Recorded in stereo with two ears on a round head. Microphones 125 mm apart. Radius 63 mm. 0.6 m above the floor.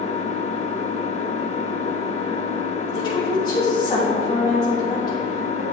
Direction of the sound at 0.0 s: 50° left (ahead or behind).